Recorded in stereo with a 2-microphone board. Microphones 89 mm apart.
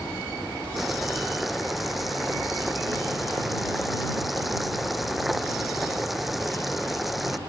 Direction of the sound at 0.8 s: Centre (ahead or behind).